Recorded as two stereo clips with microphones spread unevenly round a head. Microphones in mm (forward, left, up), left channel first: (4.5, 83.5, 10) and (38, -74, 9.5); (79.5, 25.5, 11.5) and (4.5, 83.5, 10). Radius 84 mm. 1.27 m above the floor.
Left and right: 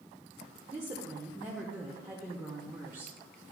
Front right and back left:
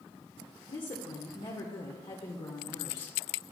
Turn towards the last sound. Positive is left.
turn(degrees=0)